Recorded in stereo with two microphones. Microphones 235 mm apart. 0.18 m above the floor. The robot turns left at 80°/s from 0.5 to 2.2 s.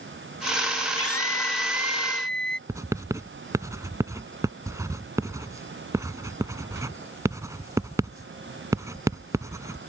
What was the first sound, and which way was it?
A scream, 100° left.